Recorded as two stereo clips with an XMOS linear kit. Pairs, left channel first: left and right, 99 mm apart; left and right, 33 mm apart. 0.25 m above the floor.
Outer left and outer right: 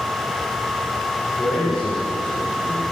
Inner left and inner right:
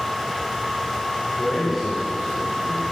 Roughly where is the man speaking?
Centre.